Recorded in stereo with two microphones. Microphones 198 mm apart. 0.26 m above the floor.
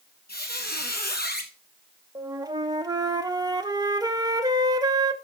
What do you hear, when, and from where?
0.3 s a squeak: 50° left (ahead or behind), 1.3 m
2.1 s a flute: 20° right (ahead or behind), 0.7 m